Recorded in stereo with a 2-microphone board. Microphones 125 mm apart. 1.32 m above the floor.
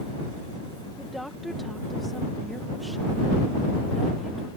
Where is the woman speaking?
Centre (ahead or behind).